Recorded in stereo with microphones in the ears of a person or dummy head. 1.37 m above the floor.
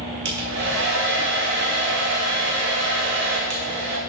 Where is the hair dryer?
60° right (ahead or behind), 1.5 m.